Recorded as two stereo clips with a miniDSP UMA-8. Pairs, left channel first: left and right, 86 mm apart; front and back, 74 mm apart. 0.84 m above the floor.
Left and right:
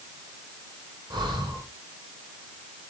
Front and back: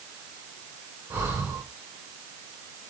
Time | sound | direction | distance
1.1 | breathing | 125° right | 3.5 m